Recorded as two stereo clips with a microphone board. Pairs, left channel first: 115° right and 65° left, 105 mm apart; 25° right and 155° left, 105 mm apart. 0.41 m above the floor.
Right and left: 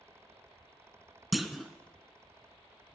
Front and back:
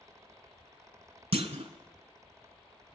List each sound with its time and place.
1.3 s a clunk: 155° left, 0.6 m